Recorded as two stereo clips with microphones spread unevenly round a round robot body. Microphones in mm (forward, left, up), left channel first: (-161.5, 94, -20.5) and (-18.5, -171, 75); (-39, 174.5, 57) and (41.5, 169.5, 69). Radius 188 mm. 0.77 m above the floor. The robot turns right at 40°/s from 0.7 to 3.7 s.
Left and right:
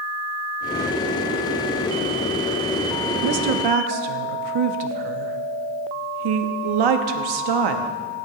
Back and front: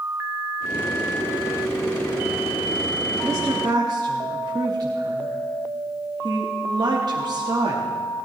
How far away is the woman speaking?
About 0.9 m.